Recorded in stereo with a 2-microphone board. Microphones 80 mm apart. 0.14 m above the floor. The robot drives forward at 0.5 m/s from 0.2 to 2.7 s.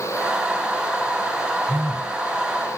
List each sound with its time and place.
1.7 s a phone buzzing: 20° right (ahead or behind), 2.0 m; by 2.2 s 15° right (ahead or behind), 2 m